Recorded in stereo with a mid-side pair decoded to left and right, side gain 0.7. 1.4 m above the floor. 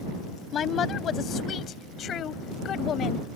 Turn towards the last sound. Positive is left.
turn(degrees=45)